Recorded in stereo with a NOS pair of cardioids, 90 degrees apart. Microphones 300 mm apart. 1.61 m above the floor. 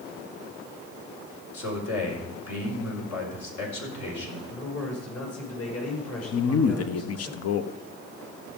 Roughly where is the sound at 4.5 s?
Ahead left.